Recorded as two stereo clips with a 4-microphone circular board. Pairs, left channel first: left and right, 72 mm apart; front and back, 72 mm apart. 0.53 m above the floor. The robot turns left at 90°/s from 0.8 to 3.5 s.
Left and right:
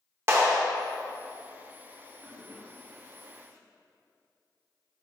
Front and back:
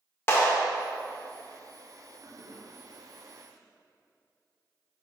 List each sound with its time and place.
0.3 s a clap: 50° right, 0.8 m
2.2 s a toilet flushing: 175° left, 1.3 m; by 3.6 s 60° left, 1.3 m